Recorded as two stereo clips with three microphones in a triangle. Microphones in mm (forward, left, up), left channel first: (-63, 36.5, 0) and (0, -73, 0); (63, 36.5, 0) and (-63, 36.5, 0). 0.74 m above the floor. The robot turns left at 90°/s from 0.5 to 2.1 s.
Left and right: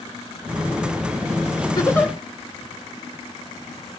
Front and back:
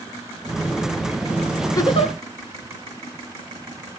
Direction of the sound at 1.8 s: 65° left.